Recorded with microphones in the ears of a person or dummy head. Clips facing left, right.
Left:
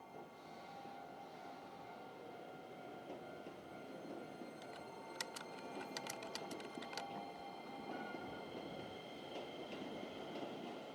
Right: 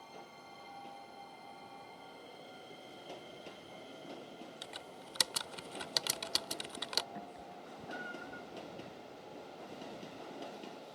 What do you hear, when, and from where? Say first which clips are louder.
4.6 s typing on a keyboard: right 1 dB; 70° right (ahead or behind)
7.2 s a cat meowing: right 2 dB; 10° right (ahead or behind)